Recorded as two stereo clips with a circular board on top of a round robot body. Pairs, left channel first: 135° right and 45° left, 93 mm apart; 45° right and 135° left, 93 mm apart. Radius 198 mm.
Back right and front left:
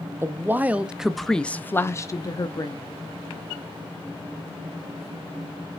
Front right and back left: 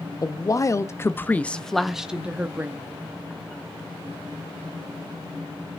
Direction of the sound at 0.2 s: 10° right.